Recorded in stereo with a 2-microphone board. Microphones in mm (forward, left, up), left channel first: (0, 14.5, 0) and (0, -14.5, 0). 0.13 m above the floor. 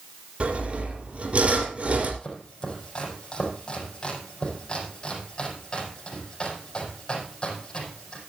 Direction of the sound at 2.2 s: 25° left (ahead or behind).